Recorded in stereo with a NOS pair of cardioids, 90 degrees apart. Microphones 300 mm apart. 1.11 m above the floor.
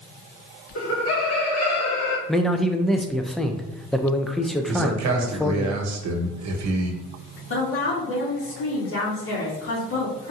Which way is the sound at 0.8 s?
45° left.